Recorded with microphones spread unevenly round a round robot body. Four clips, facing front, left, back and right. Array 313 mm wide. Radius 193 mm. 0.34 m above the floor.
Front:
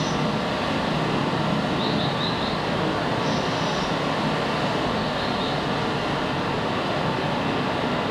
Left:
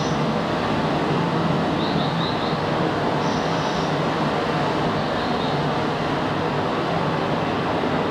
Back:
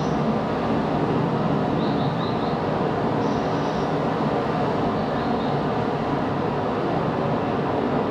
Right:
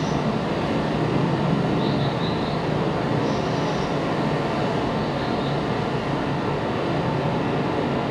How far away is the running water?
About 4.5 m.